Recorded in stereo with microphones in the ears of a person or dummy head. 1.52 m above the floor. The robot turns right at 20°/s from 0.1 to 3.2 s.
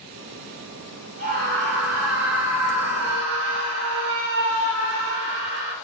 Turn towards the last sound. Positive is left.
turn(degrees=-85)